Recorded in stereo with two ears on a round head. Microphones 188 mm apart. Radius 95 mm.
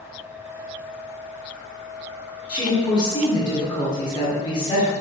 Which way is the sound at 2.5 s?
20° left (ahead or behind).